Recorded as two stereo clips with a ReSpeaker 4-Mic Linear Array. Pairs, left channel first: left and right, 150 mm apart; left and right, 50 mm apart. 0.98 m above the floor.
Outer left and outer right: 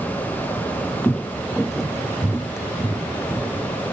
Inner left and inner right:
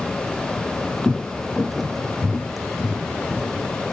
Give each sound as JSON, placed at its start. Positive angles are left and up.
{"t": 1.0, "sound": "footsteps", "side_deg": 10}